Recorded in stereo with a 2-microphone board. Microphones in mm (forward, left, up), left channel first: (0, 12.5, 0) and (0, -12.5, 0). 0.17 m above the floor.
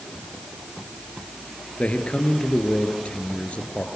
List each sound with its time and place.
1.8 s a man speaking: 55° left (ahead or behind), 3.5 m